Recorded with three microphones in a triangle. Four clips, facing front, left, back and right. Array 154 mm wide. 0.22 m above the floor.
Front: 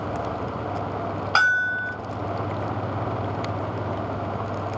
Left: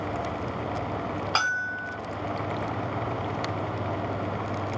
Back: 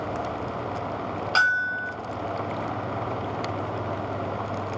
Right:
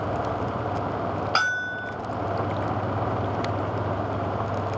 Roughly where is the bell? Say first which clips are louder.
Right 2 dB, front 2 dB; ahead.